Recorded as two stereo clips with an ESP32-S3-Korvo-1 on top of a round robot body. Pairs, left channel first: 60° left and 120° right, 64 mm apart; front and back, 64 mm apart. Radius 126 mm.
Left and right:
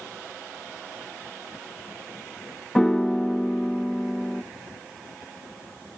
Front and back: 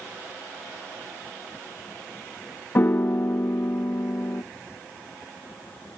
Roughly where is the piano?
Ahead.